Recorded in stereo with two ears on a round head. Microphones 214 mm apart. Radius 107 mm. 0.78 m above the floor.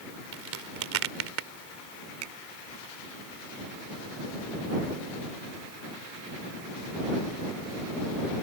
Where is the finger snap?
65° right (ahead or behind).